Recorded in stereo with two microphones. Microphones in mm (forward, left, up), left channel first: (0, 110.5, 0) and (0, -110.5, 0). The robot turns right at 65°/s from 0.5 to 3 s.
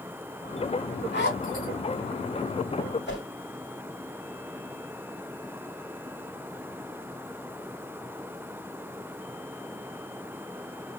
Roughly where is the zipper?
Left.